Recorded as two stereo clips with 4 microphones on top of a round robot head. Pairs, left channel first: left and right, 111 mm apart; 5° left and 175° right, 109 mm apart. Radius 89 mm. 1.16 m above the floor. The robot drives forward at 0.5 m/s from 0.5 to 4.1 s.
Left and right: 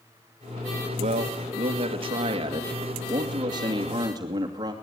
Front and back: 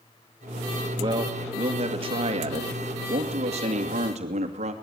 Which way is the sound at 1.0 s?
120° right.